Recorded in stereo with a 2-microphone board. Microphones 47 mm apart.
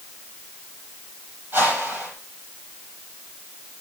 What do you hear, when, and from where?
1.5 s a whoosh: 45° right (ahead or behind), 8 m